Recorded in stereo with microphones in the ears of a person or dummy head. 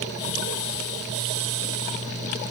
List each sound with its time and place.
Only background noise.